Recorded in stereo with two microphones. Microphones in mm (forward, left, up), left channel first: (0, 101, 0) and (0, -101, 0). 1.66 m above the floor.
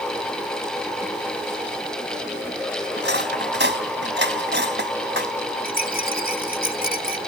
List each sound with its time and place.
3.0 s cutlery clinking: 60° right (ahead or behind)
5.7 s a rattle: 45° left (ahead or behind)